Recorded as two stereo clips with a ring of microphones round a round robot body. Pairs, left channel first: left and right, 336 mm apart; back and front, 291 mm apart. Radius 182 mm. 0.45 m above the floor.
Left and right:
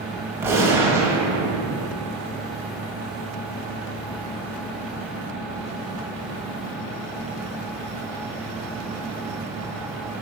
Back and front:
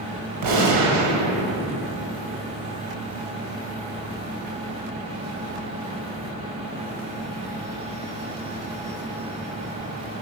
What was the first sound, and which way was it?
A gunshot, 5° right.